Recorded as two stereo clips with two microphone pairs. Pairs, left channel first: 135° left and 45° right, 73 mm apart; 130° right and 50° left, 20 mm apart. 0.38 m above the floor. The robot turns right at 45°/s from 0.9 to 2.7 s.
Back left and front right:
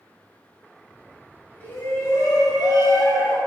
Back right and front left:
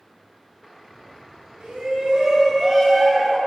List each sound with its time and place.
1.6 s a shout: 70° left, 2.5 m; by 3.4 s 120° left, 2.5 m